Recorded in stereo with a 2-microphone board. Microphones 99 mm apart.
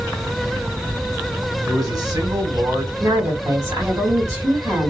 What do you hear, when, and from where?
1.6 s a man speaking: 40° right (ahead or behind), 1.7 m
3.0 s a woman speaking: 35° right (ahead or behind), 1.7 m